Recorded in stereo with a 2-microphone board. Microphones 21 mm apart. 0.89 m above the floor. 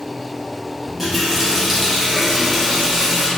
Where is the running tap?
10° right (ahead or behind), 0.7 m.